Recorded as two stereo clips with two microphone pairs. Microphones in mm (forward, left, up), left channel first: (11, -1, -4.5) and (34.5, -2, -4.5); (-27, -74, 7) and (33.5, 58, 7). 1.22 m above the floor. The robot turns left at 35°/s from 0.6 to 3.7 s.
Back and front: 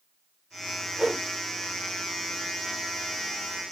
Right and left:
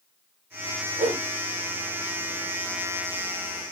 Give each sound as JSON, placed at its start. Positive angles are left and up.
{"t": 1.0, "sound": "a whoosh", "azimuth_deg": 45, "distance_m": 0.8}